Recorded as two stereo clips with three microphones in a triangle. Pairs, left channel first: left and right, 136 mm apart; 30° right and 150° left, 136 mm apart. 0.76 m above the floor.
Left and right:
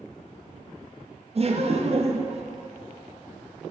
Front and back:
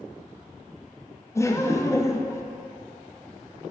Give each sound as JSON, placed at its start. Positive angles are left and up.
{"t": 1.4, "sound": "laughter", "azimuth_deg": -95, "distance_m": 0.5}